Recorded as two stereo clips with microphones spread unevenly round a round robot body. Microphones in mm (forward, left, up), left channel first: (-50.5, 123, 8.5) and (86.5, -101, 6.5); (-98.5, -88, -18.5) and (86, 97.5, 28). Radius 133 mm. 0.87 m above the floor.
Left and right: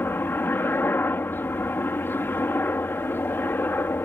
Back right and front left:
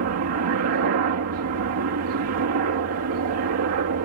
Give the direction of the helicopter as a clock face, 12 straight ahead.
11 o'clock.